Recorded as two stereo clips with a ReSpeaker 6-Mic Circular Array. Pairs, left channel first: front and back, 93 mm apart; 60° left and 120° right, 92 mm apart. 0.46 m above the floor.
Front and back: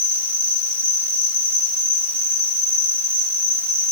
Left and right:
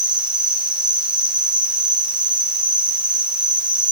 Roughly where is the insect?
Behind.